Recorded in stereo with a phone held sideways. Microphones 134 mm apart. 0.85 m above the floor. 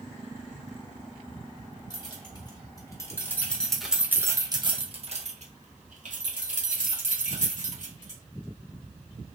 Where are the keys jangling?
35° left (ahead or behind), 1.4 m; by 8.2 s 75° right (ahead or behind), 2 m.